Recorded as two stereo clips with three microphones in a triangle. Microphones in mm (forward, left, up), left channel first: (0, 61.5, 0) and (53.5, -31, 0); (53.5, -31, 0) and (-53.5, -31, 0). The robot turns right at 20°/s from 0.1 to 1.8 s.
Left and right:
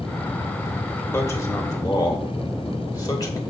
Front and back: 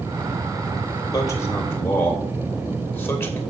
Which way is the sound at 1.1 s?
55° left.